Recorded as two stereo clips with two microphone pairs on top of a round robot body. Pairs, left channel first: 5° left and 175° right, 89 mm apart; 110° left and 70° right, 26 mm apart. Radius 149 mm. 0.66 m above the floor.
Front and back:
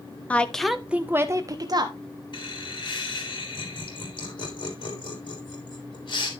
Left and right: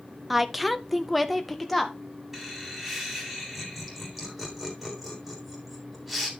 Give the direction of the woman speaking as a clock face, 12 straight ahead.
11 o'clock.